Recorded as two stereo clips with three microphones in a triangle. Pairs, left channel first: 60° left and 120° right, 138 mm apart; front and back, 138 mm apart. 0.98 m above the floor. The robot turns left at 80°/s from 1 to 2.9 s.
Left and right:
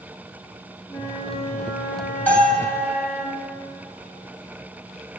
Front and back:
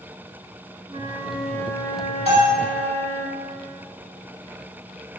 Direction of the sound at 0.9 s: 130° left.